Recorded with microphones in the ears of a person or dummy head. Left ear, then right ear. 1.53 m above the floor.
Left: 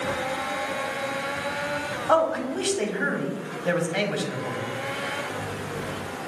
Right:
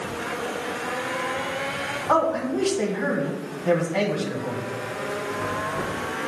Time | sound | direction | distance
2.1 | a man speaking | 80° left | 1.6 m